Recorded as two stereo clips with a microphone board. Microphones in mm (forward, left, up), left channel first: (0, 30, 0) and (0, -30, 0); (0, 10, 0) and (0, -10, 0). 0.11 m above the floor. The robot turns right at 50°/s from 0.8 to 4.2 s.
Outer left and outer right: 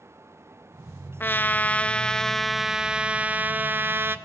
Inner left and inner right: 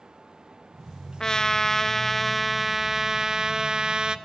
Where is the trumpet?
120° left, 0.5 m; by 4.2 s 95° right, 0.5 m.